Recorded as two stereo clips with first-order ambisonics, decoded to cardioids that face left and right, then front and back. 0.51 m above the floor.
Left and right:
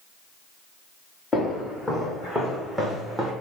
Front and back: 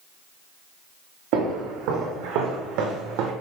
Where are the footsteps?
165° left, 2 m; by 3.3 s 170° right, 1.1 m.